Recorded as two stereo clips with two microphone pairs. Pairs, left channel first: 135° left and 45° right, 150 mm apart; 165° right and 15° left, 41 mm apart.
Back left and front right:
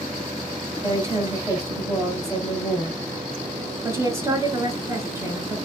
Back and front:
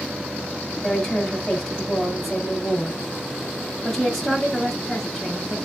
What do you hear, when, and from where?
0.8 s a woman speaking: 95° right, 1.1 m